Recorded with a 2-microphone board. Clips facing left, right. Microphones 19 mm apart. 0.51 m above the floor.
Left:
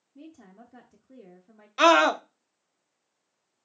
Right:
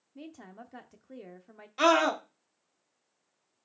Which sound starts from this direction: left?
A scream, at 1.8 s.